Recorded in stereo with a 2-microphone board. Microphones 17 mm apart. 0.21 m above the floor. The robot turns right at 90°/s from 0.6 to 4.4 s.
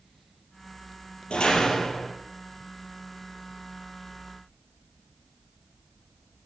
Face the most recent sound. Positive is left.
turn(degrees=5)